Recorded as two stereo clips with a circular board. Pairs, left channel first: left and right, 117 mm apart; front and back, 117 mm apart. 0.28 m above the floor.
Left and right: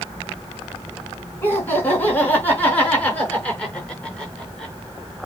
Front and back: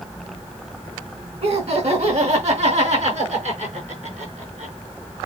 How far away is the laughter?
About 3.5 m.